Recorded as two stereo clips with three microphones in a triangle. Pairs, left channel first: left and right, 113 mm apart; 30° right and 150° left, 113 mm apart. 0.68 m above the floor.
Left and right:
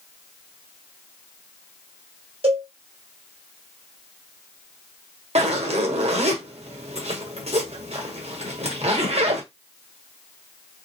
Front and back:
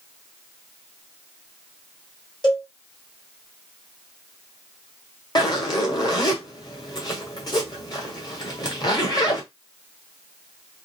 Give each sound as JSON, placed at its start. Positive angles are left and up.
{"t": 2.4, "sound": "a cowbell", "azimuth_deg": -70, "distance_m": 2.5}
{"t": 5.3, "sound": "a zipper", "azimuth_deg": -80, "distance_m": 1.4}